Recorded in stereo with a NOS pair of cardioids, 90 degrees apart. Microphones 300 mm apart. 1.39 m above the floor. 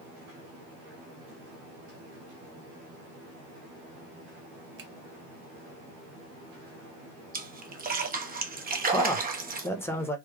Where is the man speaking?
10° left, 1.1 m.